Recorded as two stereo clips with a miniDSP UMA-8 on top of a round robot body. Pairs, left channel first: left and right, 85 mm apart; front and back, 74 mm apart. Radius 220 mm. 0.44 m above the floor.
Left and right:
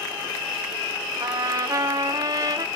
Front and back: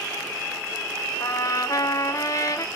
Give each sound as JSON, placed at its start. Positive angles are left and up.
{"t": 1.2, "sound": "a trumpet", "azimuth_deg": -45, "distance_m": 1.0}